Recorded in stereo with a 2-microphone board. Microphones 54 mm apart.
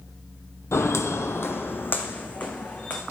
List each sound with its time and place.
0.7 s footsteps: 55° left (ahead or behind), 0.7 m; by 3.0 s 25° left (ahead or behind), 1.9 m